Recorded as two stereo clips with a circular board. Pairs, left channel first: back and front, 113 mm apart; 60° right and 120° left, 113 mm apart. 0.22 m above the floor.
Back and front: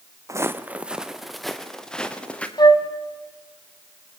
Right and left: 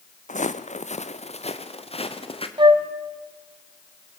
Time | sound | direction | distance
0.3 | footsteps | 65° right | 0.9 m
2.6 | a flute | 145° left | 1.4 m